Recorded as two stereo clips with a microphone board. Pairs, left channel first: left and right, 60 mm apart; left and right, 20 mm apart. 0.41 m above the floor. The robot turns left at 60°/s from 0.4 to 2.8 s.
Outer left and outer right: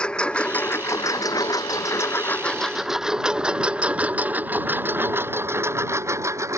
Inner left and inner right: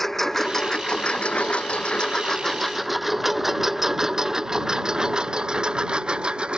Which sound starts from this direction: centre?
A lawn mower, at 0.0 s.